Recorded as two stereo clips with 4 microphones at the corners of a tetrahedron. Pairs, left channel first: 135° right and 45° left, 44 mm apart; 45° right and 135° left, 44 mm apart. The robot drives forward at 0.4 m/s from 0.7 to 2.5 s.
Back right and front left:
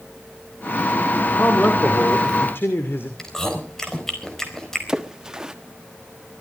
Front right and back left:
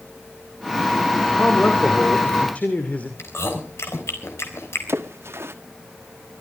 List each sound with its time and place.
1.4 s a man speaking: 90° right, 2.5 m; by 3.1 s 105° right, 2.5 m
3.2 s chewing: 60° right, 4.5 m
4.9 s a splash: 120° left, 1.3 m